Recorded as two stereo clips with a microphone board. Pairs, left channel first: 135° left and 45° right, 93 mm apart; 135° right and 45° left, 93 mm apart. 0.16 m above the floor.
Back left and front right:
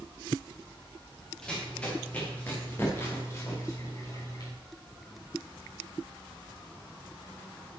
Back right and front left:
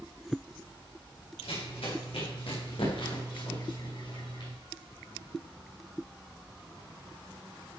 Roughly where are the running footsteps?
Behind right.